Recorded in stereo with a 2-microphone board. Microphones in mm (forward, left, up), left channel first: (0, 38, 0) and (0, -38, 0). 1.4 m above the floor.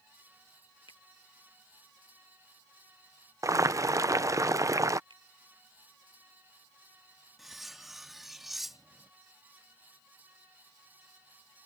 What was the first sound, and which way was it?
A finger snap, 75° left (ahead or behind).